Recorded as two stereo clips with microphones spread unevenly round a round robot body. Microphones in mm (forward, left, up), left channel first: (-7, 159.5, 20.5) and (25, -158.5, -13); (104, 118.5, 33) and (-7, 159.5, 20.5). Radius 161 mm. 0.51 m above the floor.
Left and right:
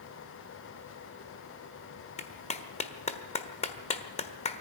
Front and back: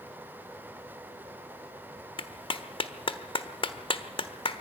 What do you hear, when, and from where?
2.2 s a clap: 25° left, 1.4 m